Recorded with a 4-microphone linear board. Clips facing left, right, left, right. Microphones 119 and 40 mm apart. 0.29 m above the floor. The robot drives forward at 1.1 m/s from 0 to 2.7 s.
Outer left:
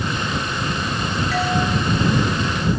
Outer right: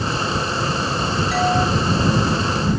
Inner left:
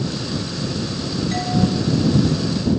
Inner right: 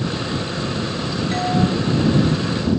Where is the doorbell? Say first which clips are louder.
Outer right 3 dB, inner right 2 dB; 10° right (ahead or behind), 7.5 m.